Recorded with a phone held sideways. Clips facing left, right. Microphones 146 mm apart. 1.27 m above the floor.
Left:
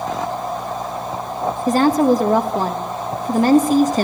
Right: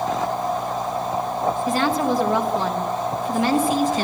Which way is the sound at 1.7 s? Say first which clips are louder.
Left 10 dB; 45° left (ahead or behind).